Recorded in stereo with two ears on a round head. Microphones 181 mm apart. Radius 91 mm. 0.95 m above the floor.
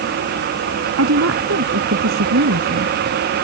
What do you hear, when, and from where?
1.0 s a woman speaking: 70° right (ahead or behind)